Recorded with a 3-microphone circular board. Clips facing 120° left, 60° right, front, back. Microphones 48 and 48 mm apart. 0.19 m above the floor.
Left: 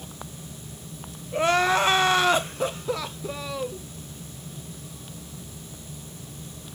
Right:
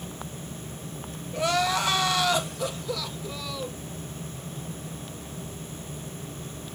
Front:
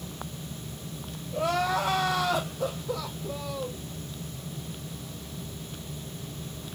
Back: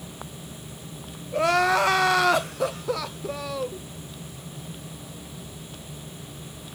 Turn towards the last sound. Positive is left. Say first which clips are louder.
# left 4 dB, back 6 dB
turn(degrees=175)